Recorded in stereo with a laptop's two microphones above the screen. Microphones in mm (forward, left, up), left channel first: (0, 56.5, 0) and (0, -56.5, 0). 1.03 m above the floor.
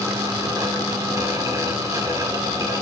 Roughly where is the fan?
Right.